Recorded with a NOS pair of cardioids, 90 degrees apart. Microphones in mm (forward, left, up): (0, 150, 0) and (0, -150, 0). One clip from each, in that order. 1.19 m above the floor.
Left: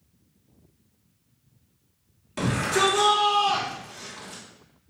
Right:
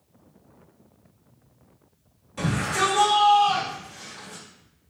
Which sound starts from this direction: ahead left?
A shout, at 2.4 s.